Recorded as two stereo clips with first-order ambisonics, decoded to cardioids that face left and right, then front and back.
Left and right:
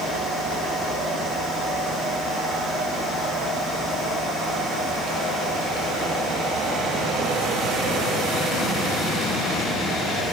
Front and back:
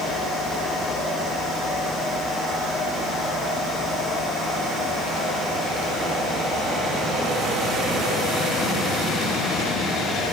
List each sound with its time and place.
Only background noise.